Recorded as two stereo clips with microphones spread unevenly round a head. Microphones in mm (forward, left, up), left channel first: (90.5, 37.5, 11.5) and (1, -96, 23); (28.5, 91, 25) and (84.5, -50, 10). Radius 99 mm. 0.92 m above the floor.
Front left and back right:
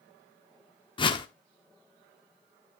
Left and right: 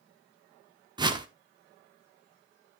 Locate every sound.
1.0 s a whoosh: 5° right, 1.6 m